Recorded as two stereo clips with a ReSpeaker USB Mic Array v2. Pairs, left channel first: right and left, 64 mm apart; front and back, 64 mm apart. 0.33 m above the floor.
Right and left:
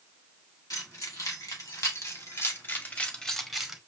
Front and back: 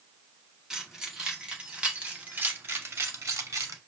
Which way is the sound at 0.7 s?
100° right.